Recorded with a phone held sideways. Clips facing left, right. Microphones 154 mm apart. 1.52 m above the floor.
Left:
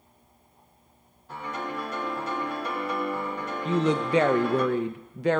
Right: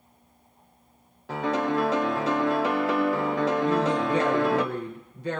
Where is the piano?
85° right, 0.7 m.